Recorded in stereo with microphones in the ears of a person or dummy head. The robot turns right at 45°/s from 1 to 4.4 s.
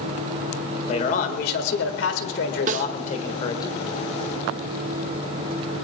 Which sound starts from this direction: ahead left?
A man speaking, at 0.9 s.